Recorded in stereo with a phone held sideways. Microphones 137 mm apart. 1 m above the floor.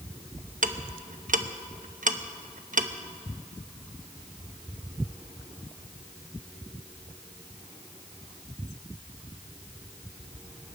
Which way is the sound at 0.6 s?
70° right (ahead or behind).